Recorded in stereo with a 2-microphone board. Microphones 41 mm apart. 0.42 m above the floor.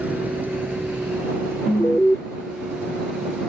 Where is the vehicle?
40° right (ahead or behind); by 3.5 s 80° right.